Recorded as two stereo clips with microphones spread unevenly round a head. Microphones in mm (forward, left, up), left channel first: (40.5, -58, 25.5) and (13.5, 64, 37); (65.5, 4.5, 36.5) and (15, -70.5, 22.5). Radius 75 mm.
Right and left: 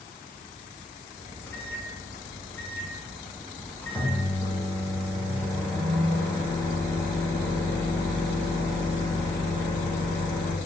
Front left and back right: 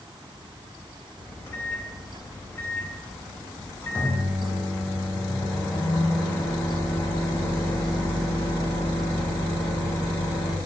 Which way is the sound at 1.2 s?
Straight ahead.